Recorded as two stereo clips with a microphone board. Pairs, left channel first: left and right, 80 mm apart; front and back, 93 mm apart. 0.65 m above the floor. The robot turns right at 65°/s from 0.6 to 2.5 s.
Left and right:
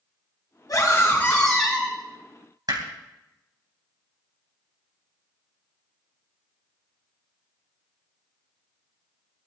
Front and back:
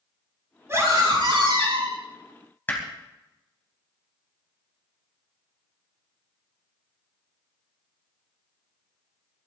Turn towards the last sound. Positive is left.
turn(degrees=-65)